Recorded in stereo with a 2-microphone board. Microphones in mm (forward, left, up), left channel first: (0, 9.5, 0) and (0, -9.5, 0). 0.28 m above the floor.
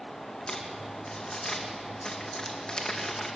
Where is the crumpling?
60° left (ahead or behind), 2.5 m.